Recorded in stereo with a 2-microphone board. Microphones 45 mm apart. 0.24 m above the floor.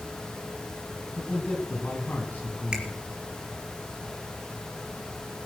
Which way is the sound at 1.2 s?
45° left (ahead or behind).